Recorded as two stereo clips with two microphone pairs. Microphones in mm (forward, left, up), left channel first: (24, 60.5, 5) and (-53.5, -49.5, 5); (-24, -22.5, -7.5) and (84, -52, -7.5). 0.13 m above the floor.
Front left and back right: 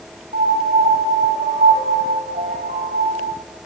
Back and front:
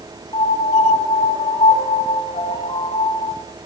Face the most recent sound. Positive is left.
turn(degrees=-155)